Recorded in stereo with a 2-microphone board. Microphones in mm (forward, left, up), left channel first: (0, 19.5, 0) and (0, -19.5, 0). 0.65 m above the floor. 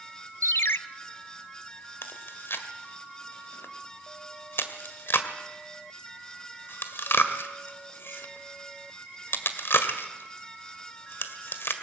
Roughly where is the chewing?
Left.